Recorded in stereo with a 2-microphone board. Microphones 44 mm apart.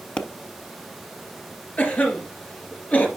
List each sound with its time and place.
0.2 s a pop: 25° left (ahead or behind), 0.6 m
1.8 s a cough: 40° left (ahead or behind), 2.5 m